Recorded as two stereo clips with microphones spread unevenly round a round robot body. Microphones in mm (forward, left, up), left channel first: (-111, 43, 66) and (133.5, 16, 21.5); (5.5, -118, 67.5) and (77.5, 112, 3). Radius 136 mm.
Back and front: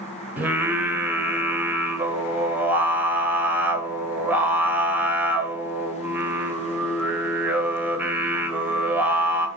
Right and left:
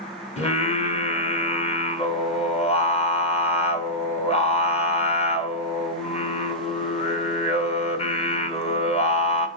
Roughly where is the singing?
Ahead right.